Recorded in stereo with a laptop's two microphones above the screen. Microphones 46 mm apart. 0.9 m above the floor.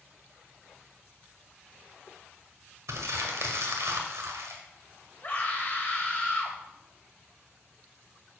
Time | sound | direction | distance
2.9 | crumpling | 80° right | 1.8 m
5.2 | a scream | 35° left (ahead or behind) | 4 m